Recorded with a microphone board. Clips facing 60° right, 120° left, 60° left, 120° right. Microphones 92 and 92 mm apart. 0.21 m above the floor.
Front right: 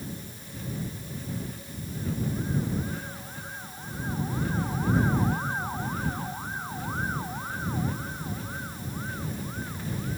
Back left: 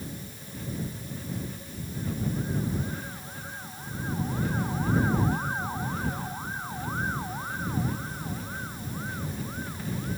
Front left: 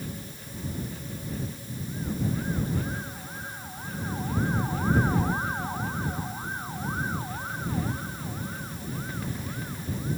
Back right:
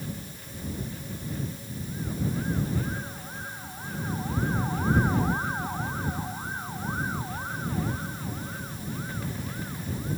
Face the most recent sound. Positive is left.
No sound to turn to.